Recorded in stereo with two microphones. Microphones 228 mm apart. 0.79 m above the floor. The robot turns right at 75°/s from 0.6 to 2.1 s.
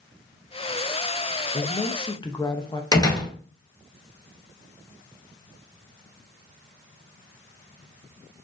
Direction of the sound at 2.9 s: 15° left (ahead or behind).